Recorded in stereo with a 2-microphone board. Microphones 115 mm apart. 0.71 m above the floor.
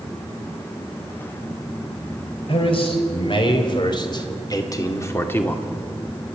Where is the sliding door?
I don't hear a sliding door.